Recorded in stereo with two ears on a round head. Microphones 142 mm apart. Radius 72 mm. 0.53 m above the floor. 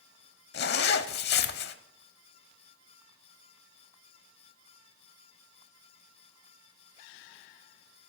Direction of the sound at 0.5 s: 70° left (ahead or behind).